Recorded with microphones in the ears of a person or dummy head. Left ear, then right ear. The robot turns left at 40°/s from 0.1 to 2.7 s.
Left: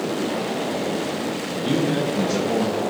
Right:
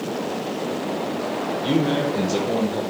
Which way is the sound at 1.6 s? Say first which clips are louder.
Even; 40° right.